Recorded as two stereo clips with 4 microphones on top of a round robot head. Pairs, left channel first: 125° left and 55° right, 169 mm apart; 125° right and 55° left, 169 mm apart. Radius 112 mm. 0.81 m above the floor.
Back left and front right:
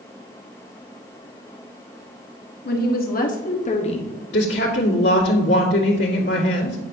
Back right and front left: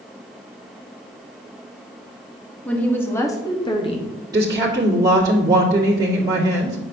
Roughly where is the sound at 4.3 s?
Behind left.